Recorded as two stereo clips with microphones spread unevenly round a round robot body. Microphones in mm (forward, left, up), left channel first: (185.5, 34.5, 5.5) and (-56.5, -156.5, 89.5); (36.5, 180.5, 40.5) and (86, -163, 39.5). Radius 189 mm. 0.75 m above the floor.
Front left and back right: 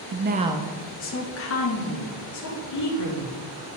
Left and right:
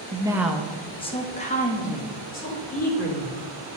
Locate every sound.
0.1 s a woman speaking: 140° right, 0.6 m; by 3.4 s 35° left, 2 m